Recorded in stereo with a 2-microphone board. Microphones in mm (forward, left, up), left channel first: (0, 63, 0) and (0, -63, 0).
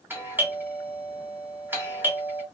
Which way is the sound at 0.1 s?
15° right (ahead or behind).